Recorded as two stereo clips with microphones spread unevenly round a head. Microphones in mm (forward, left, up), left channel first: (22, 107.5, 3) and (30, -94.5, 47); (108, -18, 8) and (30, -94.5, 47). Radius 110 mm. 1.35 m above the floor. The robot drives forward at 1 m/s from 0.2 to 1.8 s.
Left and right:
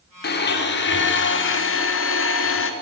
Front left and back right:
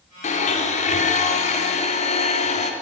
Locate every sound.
0.2 s a blender: 55° left, 4.5 m; by 2.7 s 75° left, 3.5 m